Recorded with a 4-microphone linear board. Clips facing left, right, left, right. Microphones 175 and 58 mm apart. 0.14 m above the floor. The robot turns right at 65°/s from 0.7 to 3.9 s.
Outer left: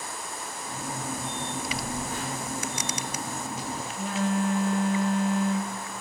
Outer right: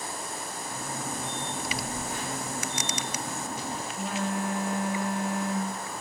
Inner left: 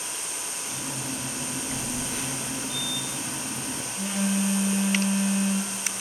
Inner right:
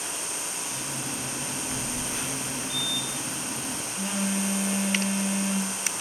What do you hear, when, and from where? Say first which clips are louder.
1.7 s a phone buzzing: outer left 1 dB, inner left 1 dB; 20° right (ahead or behind), 1.2 m; by 6.0 s 10° left (ahead or behind), 1.2 m